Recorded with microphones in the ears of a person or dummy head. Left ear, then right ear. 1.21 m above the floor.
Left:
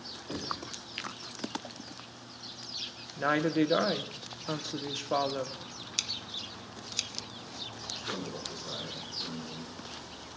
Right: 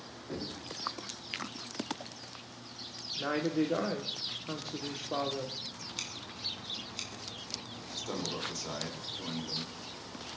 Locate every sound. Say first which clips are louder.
0.3 s knocking: left 4 dB; 25° left (ahead or behind), 2.5 m
3.2 s a woman speaking: left 4 dB; 45° left (ahead or behind), 0.9 m
6.0 s scissors: left 6 dB; 30° left (ahead or behind), 1.1 m
7.9 s a man speaking: right 3 dB; 30° right (ahead or behind), 2.5 m